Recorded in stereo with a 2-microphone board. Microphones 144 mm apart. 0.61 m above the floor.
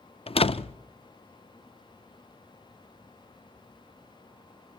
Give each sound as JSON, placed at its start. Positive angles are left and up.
{"t": 0.3, "sound": "a door slam", "side_deg": 40, "distance_m": 0.5}